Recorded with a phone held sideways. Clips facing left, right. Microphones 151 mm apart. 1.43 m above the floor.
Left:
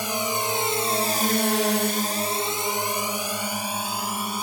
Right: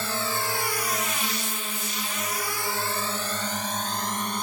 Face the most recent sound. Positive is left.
turn(degrees=5)  # may be behind; listen again after turning